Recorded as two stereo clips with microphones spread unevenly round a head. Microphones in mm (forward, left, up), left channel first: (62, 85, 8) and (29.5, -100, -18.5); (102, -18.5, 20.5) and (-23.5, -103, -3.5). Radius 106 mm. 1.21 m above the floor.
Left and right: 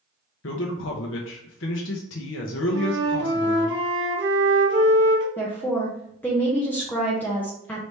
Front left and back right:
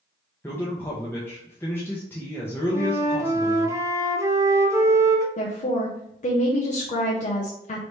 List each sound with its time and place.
0.4 s a man speaking: 115° left, 0.6 m
2.7 s a flute: 75° right, 1.0 m
5.4 s a woman speaking: 5° right, 0.8 m